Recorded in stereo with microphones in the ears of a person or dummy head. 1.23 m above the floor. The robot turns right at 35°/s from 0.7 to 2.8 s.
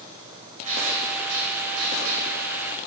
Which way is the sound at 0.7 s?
140° right.